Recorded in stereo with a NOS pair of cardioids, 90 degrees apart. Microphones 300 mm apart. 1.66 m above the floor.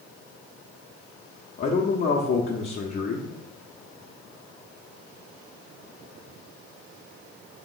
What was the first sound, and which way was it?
A man speaking, 35° left.